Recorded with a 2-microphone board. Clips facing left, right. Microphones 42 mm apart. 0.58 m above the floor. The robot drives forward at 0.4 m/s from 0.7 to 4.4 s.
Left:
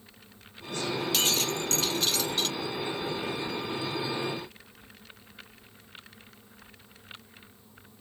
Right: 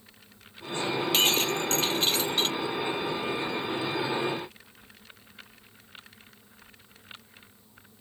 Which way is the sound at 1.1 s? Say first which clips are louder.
Right 5 dB; 35° right (ahead or behind).